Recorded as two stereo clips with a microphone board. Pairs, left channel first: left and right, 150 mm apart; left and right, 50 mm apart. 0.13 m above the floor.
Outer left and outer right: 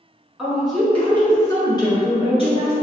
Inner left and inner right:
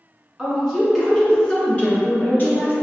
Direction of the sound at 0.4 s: 5° right (ahead or behind).